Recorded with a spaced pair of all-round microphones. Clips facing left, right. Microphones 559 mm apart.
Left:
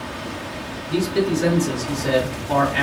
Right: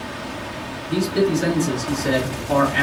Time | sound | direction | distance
0.9 | a man speaking | 5° left (ahead or behind) | 1.8 m